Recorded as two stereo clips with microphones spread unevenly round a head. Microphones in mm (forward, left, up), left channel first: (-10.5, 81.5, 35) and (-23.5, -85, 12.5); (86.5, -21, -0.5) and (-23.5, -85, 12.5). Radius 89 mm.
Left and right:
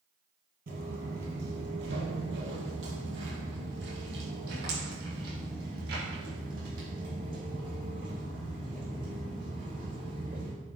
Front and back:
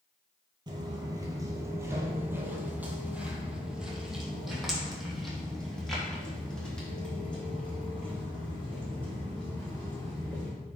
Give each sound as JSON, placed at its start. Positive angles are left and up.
{"t": 0.7, "sound": "footsteps", "azimuth_deg": -120, "distance_m": 1.8}